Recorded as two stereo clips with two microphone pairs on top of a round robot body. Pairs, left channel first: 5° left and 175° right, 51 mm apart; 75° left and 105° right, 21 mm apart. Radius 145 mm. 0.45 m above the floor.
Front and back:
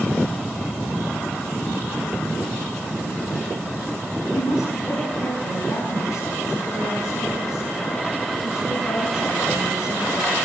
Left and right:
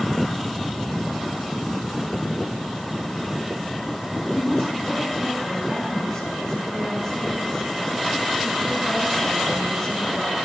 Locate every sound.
4.3 s a woman speaking: 10° right, 7.5 m